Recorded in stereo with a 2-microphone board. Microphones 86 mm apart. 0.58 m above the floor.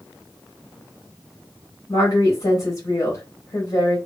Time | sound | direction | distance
1.9 | a woman speaking | 40° left (ahead or behind) | 1.4 m